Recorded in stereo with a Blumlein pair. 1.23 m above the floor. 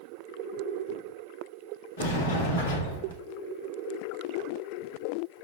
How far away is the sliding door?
About 1.0 m.